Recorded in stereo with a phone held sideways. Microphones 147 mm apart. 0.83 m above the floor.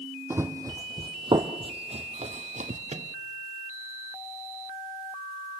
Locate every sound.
0.3 s running footsteps: 15° right (ahead or behind), 1.5 m; by 2.8 s 60° right (ahead or behind), 1.5 m
2.9 s a microwave: 50° right (ahead or behind), 0.9 m